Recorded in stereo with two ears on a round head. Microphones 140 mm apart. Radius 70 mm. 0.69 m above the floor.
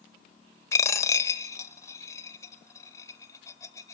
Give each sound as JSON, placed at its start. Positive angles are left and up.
{"t": 0.7, "sound": "a dropped coin", "side_deg": 20, "distance_m": 0.7}